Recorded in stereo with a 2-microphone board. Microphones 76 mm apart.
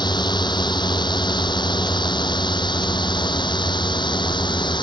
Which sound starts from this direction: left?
A drone, at 0.0 s.